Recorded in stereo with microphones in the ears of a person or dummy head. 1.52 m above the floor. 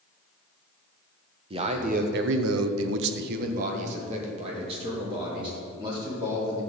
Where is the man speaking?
25° right (ahead or behind), 1.5 m.